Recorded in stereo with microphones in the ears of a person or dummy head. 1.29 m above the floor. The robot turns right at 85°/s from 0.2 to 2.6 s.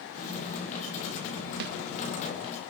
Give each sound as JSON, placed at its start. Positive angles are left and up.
{"t": 1.6, "sound": "a snare drum", "side_deg": -50, "distance_m": 1.0}